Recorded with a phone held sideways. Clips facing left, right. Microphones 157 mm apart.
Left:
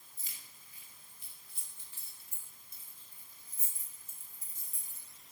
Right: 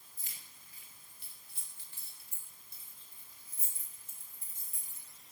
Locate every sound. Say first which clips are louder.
0.2 s keys jangling: even; 75° right (ahead or behind), 4 m; by 5.1 s 55° right (ahead or behind), 5 m